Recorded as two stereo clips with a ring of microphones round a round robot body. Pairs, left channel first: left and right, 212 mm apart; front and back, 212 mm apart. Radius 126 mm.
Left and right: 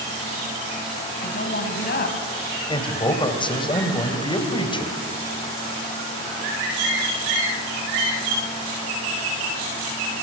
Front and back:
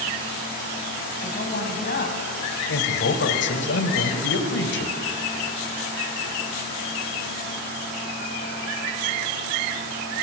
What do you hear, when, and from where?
1.2 s a woman speaking: 50° left, 3 m
2.7 s a man speaking: 25° left, 2.5 m